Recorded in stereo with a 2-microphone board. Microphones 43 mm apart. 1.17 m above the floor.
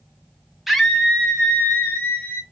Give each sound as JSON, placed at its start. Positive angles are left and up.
{"t": 0.7, "sound": "a scream", "side_deg": -5, "distance_m": 0.7}